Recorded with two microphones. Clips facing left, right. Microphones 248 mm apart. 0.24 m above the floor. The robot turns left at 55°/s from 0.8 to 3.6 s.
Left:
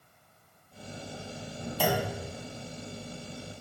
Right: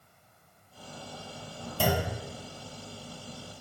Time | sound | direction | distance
1.8 | a clunk | 45° right (ahead or behind) | 1.3 m